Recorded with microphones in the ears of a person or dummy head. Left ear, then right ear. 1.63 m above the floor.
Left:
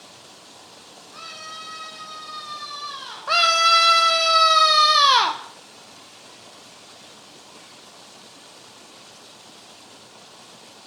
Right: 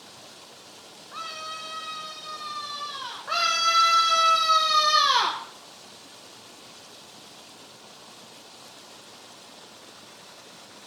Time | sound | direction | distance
1.1 | a scream | 35° right (ahead or behind) | 4.5 m
3.3 | a scream | 30° left (ahead or behind) | 1.1 m